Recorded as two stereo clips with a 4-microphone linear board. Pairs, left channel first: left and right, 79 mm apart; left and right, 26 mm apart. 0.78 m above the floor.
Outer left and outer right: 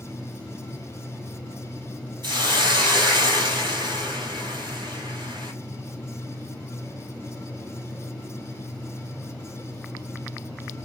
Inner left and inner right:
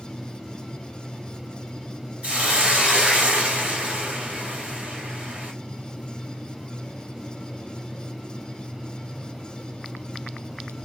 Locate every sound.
2.2 s a hiss: 75° right (ahead or behind), 1.5 m